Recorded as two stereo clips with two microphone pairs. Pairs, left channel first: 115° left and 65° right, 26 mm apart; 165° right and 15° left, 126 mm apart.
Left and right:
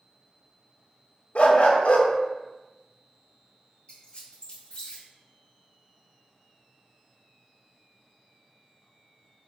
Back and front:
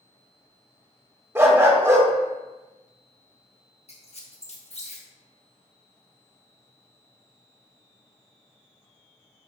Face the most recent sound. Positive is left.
turn(degrees=165)